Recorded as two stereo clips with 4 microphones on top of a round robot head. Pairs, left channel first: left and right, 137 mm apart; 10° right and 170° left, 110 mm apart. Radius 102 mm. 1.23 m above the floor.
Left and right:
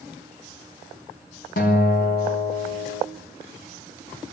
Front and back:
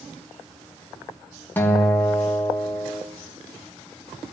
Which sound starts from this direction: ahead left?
A guitar, at 1.6 s.